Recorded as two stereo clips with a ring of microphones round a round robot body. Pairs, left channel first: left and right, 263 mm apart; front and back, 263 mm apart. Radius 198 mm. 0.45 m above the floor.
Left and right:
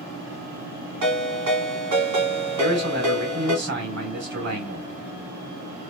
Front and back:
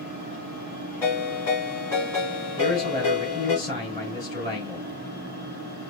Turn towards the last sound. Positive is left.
turn(degrees=-80)